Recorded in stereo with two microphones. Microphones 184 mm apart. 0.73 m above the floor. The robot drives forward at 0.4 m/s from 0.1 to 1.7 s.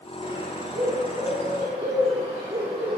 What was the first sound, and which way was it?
A bird, 50° right (ahead or behind).